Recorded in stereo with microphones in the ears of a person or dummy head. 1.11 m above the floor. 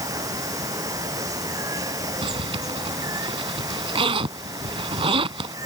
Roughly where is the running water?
Centre.